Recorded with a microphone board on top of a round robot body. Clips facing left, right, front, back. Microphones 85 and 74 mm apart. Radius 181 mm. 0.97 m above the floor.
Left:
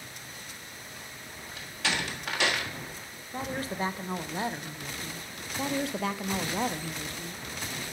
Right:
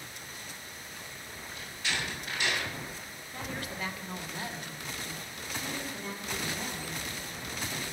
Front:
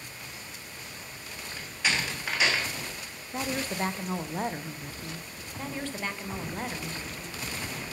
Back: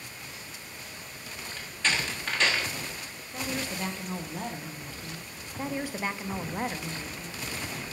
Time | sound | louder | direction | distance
1.6 | a door slam | left 4 dB, even | 80° left | 1.3 m
3.3 | a woman speaking | left 6 dB, front 2 dB | 40° left | 0.8 m
5.6 | a woman speaking | left 10 dB, back 3 dB | 100° left | 0.6 m